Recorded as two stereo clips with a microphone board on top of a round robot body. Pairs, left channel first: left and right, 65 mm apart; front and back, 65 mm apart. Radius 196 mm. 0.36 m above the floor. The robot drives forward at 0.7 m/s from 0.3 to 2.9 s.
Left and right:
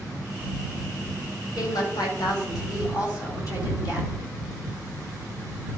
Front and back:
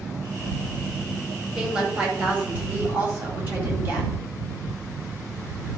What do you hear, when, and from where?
1.6 s a woman speaking: 100° left, 3 m; by 4.1 s 120° left, 3 m